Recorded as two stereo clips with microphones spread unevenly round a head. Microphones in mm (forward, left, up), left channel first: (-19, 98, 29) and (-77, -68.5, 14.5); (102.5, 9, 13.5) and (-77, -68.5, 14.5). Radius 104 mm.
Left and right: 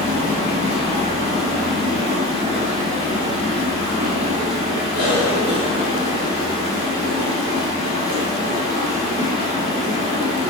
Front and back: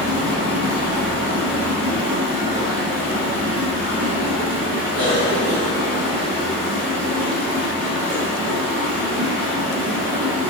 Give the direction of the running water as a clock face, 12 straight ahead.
5 o'clock.